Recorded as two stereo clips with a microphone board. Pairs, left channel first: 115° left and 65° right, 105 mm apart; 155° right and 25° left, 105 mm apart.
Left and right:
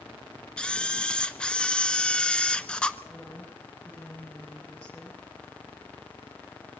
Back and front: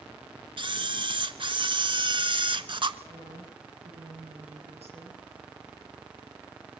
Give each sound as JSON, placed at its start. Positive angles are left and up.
{"t": 0.6, "sound": "a camera shutter", "azimuth_deg": 35, "distance_m": 0.8}
{"t": 3.1, "sound": "a woman speaking", "azimuth_deg": 40, "distance_m": 9.5}